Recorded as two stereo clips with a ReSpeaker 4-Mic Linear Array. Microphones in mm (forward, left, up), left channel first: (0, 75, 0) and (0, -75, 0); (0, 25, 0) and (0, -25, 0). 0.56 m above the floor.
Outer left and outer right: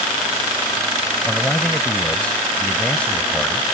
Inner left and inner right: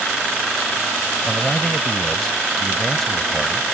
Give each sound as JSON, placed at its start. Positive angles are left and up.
{"t": 1.2, "sound": "a man speaking", "side_deg": 10}